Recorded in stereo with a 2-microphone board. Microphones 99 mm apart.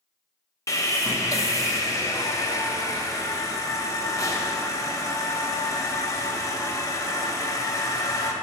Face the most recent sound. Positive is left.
turn(degrees=30)  # may be behind; listen again after turning